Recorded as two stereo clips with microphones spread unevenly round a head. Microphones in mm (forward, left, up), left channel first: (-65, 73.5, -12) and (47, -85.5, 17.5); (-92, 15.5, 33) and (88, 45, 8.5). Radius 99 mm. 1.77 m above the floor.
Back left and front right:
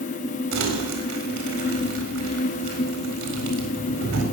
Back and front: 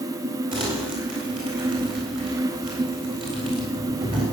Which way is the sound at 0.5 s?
60° right.